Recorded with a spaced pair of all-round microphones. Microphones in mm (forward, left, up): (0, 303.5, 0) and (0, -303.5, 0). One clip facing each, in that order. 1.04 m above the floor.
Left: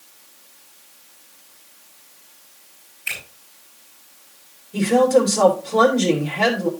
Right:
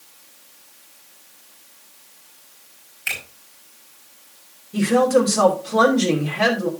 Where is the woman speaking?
40° right (ahead or behind), 2.5 m.